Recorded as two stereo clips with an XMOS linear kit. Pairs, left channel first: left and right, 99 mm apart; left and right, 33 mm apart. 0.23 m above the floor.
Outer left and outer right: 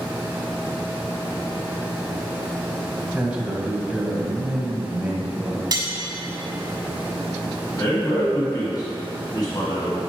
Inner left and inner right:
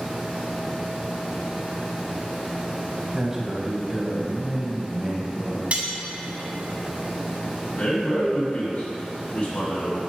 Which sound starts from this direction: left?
A man speaking, at 7.8 s.